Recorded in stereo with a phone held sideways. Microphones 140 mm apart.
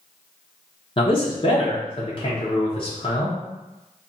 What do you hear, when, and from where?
1.0 s a man speaking: 35° left (ahead or behind), 0.5 m